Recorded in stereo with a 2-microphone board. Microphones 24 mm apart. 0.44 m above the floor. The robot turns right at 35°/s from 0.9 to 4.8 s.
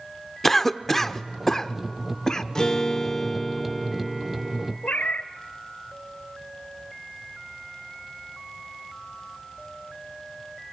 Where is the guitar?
140° left, 1.4 m; by 4.7 s 145° right, 1.4 m.